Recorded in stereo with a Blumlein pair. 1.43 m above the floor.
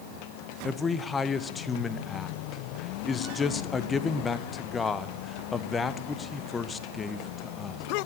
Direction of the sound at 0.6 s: 15° left.